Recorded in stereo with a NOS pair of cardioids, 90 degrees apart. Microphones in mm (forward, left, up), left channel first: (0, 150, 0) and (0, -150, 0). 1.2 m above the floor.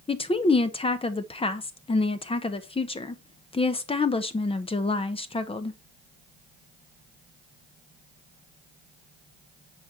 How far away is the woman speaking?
About 0.8 m.